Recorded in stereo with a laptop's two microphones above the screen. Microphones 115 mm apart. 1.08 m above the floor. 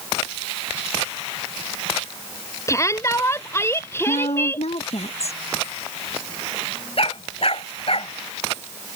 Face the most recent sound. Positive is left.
turn(degrees=55)  # may be behind; listen again after turning